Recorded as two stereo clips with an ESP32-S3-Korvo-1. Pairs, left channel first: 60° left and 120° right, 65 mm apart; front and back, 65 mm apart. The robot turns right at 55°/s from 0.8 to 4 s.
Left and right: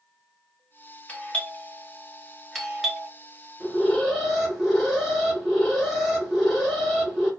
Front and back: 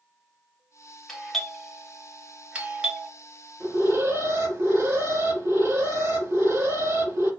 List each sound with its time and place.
1.1 s a doorbell: 60° left, 1.1 m; by 3.1 s 170° left, 1.1 m
3.6 s an alarm: 130° left, 2.5 m; by 7.3 s 150° left, 2.5 m